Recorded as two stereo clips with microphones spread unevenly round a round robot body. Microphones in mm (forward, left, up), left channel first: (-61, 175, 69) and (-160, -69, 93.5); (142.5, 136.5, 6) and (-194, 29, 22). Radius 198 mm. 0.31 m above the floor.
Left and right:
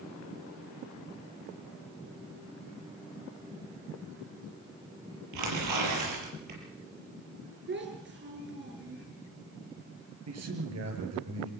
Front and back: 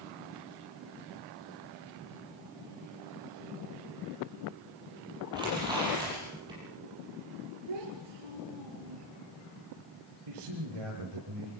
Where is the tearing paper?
80° right, 6 m.